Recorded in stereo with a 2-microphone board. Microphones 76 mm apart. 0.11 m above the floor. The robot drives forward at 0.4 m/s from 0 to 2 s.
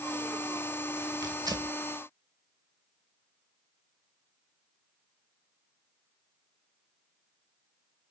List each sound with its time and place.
1.2 s tearing paper: 60° right (ahead or behind), 0.5 m; by 1.8 s 55° right (ahead or behind), 0.6 m